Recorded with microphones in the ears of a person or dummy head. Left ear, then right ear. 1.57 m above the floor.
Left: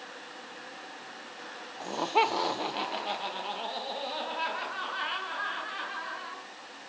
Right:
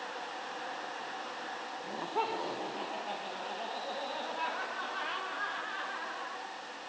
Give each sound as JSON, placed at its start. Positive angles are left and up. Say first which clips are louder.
{"t": 1.8, "sound": "laughter", "louder": "left 9 dB", "side_deg": 85, "distance_m": 0.8}